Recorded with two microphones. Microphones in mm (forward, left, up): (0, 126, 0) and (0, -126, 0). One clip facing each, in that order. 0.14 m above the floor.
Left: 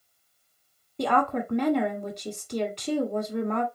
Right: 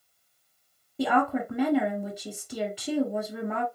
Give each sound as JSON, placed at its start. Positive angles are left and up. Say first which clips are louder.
{"t": 1.0, "sound": "a woman speaking", "louder": "right 1 dB", "side_deg": -5, "distance_m": 1.1}